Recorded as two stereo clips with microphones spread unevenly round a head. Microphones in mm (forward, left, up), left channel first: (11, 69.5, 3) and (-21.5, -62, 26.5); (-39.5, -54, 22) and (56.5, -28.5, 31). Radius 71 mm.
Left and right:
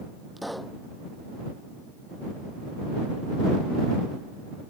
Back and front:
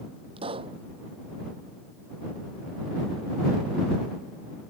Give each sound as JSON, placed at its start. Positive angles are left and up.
{"t": 0.4, "sound": "a pop", "azimuth_deg": -15}